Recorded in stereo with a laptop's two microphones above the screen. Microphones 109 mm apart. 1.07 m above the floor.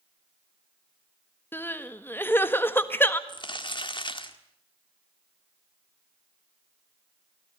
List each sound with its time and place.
1.5 s crying: 20° left (ahead or behind), 1.5 m
3.3 s crumpling: 45° left (ahead or behind), 1.9 m